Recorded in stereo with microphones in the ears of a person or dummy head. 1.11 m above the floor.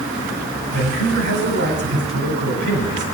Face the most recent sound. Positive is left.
turn(degrees=-55)  # may be behind; listen again after turning